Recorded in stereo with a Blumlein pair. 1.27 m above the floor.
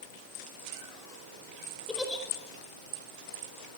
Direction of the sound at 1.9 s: 10° left.